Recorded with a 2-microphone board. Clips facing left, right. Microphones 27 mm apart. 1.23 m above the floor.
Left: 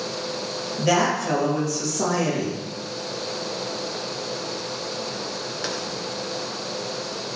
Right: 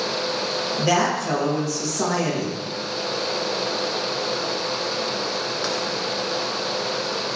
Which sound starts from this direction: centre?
A woman speaking, at 0.8 s.